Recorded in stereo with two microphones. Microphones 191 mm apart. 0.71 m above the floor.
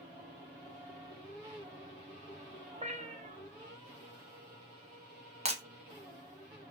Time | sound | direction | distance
2.7 | a cat meowing | 35° right (ahead or behind) | 0.6 m
5.5 | breaking glass | 35° right (ahead or behind) | 0.7 m